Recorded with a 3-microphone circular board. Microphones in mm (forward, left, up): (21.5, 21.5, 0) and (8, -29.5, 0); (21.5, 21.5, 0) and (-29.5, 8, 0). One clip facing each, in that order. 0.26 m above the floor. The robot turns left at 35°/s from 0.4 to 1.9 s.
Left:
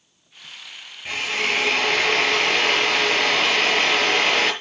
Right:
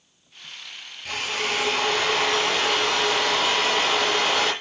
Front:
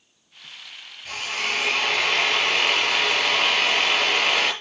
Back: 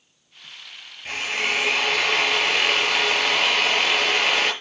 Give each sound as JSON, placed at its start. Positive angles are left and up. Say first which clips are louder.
{"t": 1.1, "sound": "a drill", "louder": "left 3 dB, back 3 dB", "azimuth_deg": 145, "distance_m": 6.0}